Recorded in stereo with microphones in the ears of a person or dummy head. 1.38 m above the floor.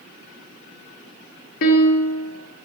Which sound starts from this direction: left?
A piano, at 1.6 s.